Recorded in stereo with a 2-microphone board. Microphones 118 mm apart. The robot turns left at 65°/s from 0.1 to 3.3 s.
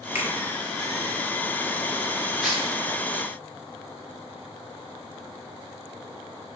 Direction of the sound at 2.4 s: Centre (ahead or behind).